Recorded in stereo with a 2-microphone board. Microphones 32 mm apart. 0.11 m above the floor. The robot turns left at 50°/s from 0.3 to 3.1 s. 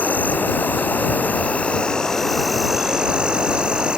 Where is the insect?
110° left; by 4.0 s 30° right.